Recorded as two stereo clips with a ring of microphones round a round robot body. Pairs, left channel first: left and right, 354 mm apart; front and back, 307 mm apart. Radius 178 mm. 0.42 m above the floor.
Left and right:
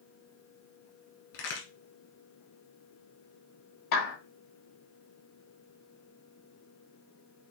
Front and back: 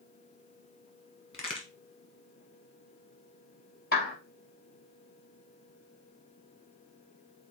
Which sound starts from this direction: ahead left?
A clap, at 3.9 s.